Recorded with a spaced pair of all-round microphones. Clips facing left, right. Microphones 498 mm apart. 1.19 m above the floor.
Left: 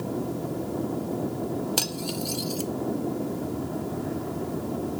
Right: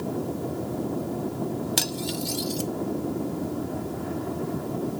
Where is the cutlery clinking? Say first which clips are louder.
Right 1 dB; 40° right (ahead or behind), 0.6 m.